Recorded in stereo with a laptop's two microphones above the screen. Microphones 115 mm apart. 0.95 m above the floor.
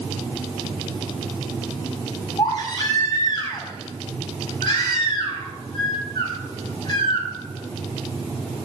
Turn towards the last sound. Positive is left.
turn(degrees=45)  # may be behind; listen again after turning